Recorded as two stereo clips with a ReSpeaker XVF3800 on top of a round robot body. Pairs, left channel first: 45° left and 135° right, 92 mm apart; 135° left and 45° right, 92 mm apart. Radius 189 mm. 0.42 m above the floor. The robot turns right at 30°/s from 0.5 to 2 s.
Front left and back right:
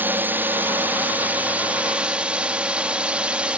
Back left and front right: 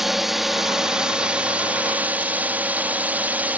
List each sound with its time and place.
0.0 s a drone: 125° right; by 3.6 s 80° right